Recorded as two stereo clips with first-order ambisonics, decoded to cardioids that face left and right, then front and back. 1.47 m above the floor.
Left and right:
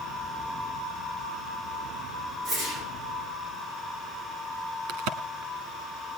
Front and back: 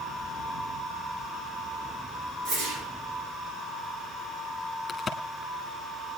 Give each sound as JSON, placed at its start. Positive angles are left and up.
{"t": 2.5, "sound": "a whoosh", "azimuth_deg": -155, "distance_m": 7.0}
{"t": 4.9, "sound": "a crack", "azimuth_deg": -80, "distance_m": 1.8}